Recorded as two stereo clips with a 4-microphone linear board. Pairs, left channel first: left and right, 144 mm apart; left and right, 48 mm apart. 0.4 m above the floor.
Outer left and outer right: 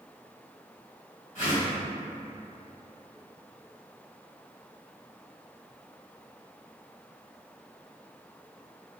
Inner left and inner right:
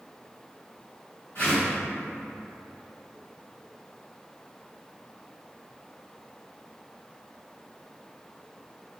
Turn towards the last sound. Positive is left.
turn(degrees=60)  # may be behind; listen again after turning